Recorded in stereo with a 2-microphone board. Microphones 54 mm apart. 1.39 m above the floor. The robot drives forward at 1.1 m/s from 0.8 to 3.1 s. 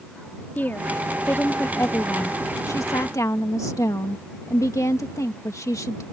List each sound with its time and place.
0.6 s a woman speaking: 40° left (ahead or behind); by 6.0 s 80° left